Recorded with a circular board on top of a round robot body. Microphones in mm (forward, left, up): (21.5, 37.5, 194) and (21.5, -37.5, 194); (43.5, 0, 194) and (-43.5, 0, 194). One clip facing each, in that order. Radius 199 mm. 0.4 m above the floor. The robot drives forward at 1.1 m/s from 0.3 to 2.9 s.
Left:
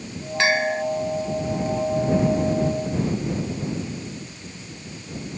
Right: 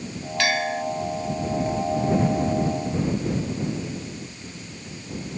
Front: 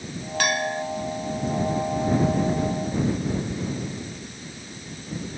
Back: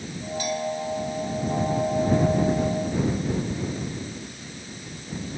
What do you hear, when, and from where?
0.4 s a bell: 25° left